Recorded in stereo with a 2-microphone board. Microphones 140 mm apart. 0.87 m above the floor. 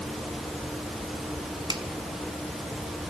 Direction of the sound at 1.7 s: 30° right (ahead or behind).